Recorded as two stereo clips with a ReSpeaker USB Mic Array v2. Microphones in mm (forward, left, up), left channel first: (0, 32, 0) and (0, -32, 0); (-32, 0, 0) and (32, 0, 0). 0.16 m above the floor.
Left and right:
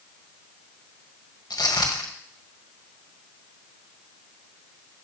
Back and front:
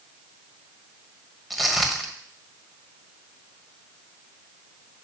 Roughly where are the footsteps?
Left.